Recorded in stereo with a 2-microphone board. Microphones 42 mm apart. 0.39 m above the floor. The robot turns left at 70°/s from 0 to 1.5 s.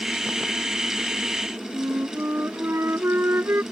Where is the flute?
80° right.